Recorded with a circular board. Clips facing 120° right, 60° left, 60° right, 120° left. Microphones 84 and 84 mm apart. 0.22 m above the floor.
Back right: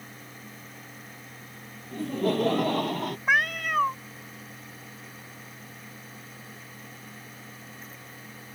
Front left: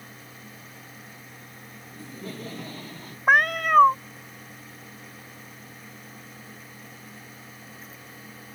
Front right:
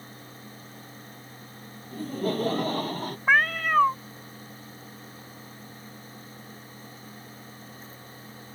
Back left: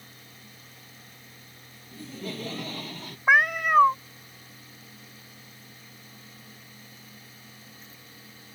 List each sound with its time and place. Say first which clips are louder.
1.9 s laughter: back right 13 dB, front right 9 dB; 100° right; by 3.2 s 105° right
3.3 s a cat meowing: front left 6 dB, back left 2 dB; 50° left